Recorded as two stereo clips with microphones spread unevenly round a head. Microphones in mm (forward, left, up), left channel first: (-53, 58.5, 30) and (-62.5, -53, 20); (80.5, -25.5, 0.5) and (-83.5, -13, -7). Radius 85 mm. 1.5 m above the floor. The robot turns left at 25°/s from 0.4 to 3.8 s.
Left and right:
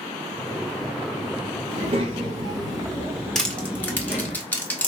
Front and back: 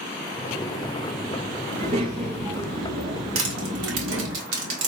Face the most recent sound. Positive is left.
turn(degrees=160)